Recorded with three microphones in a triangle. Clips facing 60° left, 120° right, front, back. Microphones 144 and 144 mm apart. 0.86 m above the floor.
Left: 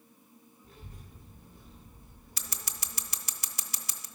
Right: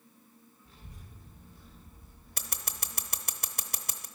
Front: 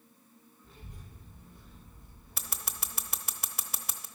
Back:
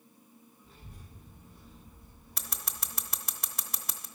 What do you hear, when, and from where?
0.6 s a child speaking: 95° left, 2 m
2.4 s scissors: 85° right, 0.7 m